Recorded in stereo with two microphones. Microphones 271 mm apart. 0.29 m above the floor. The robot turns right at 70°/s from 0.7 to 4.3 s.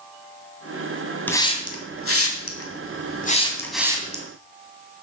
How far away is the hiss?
About 2.0 m.